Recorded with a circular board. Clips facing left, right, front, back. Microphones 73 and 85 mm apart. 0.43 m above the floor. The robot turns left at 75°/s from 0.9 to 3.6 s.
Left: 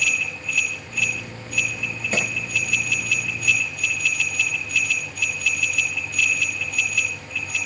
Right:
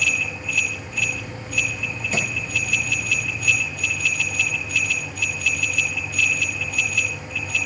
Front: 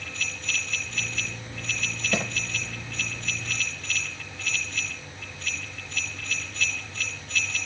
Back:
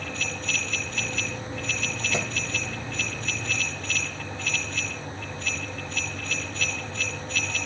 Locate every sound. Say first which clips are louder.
2.1 s a clap: left 1 dB, front 2 dB; 40° left, 9.5 m; by 2.2 s 30° left, 9.5 m